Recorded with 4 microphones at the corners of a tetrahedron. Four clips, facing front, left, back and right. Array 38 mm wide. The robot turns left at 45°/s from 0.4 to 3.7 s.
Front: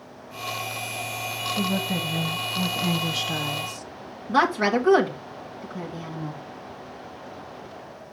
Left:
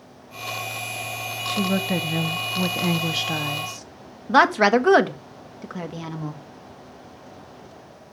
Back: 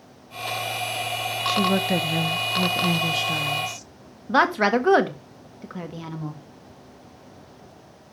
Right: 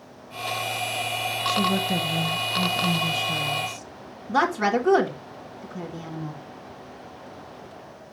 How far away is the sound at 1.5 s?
About 1.0 m.